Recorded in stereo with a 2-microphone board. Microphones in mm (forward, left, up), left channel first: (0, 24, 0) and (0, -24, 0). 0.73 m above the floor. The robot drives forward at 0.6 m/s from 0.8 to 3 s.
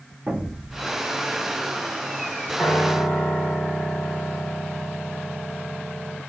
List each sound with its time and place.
0.3 s an explosion: 15° right (ahead or behind), 0.8 m
2.6 s a piano: 20° left (ahead or behind), 1.3 m